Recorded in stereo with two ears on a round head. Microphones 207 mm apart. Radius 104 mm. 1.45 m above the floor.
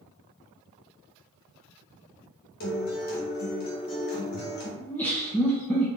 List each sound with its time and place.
2.6 s a guitar: 40° left (ahead or behind), 1.1 m
4.8 s laughter: 5° left (ahead or behind), 0.7 m